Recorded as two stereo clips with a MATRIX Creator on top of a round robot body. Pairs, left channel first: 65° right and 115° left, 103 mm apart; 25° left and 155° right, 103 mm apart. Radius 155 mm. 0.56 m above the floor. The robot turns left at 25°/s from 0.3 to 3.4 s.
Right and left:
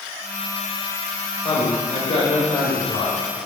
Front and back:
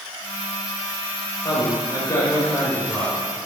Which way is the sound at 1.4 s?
20° right.